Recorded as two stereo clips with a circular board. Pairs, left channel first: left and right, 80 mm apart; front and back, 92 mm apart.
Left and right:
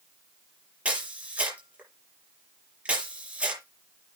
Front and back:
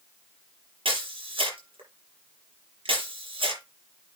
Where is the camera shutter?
165° right, 7.5 m.